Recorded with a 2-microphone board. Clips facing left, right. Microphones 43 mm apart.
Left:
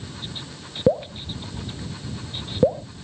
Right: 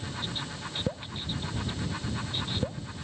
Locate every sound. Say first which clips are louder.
0.9 s dripping: left 18 dB; 65° left (ahead or behind)